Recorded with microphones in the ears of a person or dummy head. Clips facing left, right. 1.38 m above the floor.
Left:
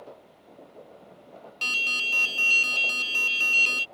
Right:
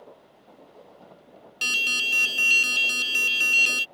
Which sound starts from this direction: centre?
An alarm, at 1.6 s.